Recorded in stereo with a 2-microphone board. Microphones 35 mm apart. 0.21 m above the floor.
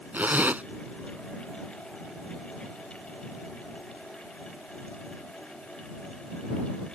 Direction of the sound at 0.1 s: 50° right (ahead or behind).